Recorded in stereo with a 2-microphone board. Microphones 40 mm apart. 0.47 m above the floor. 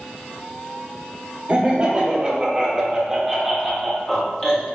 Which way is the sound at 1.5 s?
30° right (ahead or behind).